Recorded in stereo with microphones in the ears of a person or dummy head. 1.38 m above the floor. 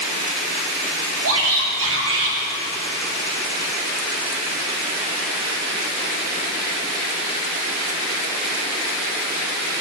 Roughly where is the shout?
Right.